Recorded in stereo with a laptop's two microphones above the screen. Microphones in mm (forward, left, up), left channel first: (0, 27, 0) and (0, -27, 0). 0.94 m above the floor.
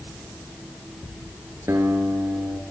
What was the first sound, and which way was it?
A guitar, 55° right (ahead or behind).